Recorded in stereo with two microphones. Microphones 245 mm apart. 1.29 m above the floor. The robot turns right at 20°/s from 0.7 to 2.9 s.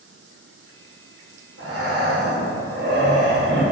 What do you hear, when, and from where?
1.6 s breathing: 75° right (ahead or behind), 0.8 m; by 3.6 s 45° right (ahead or behind), 0.8 m